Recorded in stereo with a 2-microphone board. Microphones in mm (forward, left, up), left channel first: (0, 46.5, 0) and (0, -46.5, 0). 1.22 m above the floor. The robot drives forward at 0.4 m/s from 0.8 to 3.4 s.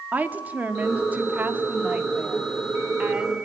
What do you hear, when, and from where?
0.1 s a woman speaking: 20° right (ahead or behind), 2.5 m; by 3.4 s 15° right (ahead or behind), 3.5 m